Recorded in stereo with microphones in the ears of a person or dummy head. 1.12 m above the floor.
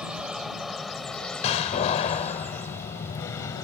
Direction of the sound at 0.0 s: Centre (ahead or behind).